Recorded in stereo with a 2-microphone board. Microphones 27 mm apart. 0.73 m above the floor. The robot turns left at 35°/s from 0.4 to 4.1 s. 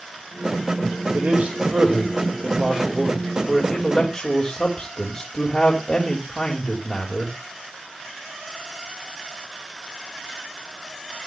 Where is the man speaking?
105° right, 3 m; by 7.4 s 155° left, 3 m.